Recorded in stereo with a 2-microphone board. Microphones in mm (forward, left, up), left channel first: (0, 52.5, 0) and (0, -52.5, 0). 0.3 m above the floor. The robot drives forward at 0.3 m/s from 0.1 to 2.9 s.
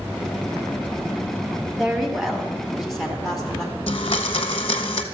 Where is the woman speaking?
Centre (ahead or behind), 1.6 m.